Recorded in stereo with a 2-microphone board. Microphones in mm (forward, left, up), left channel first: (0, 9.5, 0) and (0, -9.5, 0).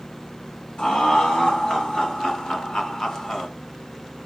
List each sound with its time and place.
0.8 s laughter: 60° left (ahead or behind), 5 m; by 3.5 s 25° left (ahead or behind), 1.7 m